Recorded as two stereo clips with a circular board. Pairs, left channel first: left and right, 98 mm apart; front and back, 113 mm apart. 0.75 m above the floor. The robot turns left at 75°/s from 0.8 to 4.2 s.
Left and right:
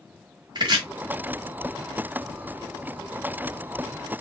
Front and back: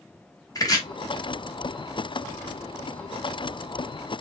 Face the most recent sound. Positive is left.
turn(degrees=50)